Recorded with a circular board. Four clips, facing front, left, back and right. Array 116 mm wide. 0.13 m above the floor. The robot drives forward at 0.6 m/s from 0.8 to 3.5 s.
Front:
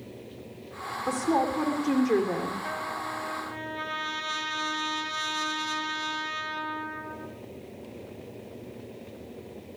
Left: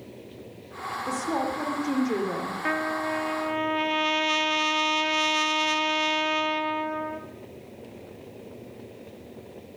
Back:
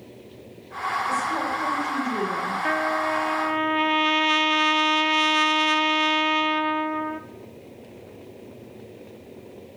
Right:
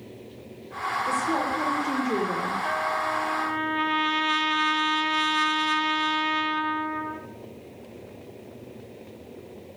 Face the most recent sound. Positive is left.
turn(degrees=160)